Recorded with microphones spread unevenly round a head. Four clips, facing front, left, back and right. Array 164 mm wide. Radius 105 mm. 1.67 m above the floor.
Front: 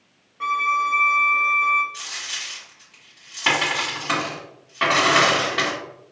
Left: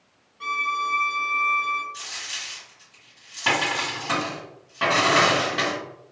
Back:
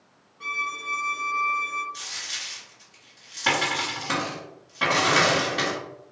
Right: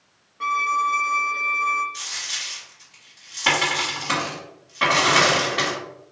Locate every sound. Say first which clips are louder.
0.4 s a violin: right 5 dB, front 12 dB; 45° right, 0.6 m
1.9 s a dropped coin: right 2 dB, front 3 dB; 155° left, 1.6 m